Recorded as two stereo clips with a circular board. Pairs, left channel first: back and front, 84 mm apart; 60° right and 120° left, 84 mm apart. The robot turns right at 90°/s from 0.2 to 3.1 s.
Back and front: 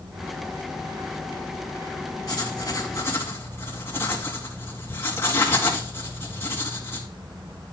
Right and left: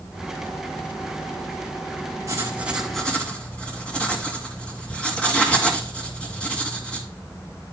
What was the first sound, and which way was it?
Writing, 155° left.